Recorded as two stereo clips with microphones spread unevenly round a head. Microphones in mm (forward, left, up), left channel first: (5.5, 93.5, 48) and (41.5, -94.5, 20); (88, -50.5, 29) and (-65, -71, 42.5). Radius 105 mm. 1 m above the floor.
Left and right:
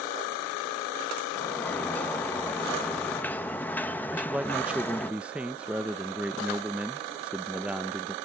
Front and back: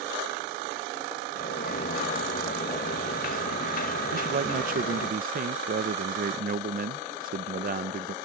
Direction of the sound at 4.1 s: 155° right.